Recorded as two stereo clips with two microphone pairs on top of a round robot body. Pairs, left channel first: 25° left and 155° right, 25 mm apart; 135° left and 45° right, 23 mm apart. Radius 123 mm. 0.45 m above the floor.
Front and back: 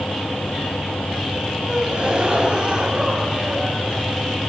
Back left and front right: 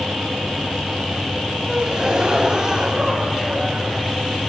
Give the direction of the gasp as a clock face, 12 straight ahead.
3 o'clock.